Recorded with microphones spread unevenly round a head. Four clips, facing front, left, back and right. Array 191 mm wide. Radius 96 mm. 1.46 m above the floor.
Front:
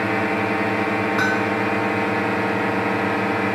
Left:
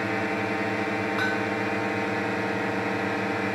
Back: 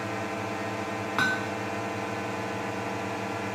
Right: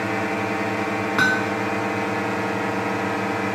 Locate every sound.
0.0 s a drone: 15° right
1.2 s hammering: 75° right